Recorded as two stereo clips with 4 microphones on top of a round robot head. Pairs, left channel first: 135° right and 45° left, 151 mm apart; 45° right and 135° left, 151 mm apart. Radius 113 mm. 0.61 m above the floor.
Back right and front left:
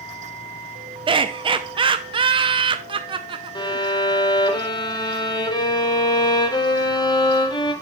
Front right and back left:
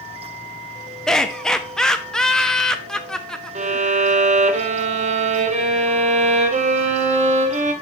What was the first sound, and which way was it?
Laughter, 40° left.